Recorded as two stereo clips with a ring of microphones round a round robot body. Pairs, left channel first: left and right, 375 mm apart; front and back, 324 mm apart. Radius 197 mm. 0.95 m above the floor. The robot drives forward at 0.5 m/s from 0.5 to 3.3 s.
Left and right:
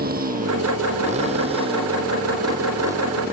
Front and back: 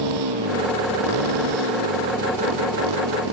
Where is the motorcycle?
155° right; by 3.3 s 175° right.